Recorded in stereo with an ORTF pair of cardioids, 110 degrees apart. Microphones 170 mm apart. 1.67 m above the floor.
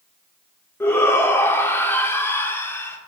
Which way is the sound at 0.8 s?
15° left.